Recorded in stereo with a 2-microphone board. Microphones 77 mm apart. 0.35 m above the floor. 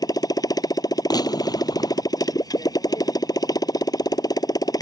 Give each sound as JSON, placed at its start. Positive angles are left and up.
{"t": 0.0, "sound": "a motorcycle", "side_deg": 55}
{"t": 1.1, "sound": "a gunshot", "side_deg": 60}